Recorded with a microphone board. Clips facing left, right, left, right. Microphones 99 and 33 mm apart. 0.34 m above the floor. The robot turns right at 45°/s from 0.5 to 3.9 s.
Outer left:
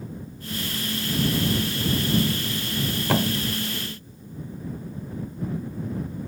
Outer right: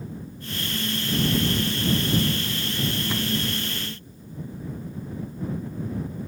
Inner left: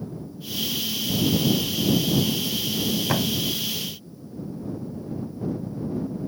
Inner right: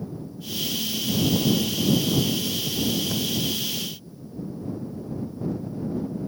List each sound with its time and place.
3.1 s a thud: 80° left; by 3.4 s 70° left (ahead or behind)